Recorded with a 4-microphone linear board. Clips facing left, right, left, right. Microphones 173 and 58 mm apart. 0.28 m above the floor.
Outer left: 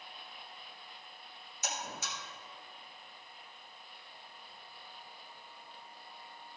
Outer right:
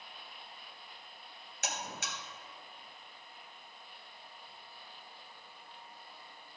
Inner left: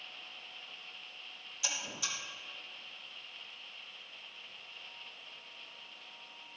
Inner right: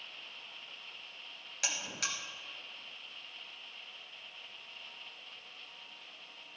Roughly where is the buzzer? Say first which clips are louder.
Even, inner right 2 dB; right.